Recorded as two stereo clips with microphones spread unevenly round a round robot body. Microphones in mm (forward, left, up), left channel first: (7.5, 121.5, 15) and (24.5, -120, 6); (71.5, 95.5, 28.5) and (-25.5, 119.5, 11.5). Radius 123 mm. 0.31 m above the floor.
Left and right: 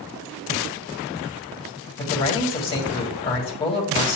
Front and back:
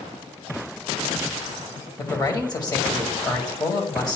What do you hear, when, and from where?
2.0 s a man speaking: 30° left, 1.9 m